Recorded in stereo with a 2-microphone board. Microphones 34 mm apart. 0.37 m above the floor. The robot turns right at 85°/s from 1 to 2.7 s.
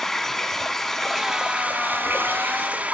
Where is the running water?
170° left, 1.3 m; by 2.9 s 50° right, 1.3 m.